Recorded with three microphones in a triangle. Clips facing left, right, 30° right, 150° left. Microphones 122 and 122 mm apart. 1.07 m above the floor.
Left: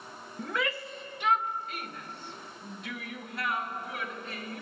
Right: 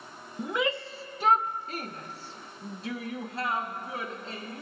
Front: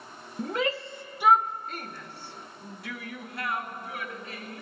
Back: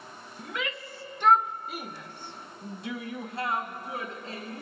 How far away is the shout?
About 0.8 m.